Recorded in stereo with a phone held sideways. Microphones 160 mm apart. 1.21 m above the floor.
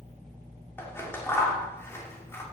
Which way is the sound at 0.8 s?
15° left (ahead or behind).